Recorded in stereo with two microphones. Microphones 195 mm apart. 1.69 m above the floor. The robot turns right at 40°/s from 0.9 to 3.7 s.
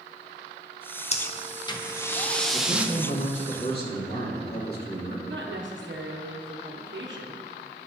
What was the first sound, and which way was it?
Breathing, 120° left.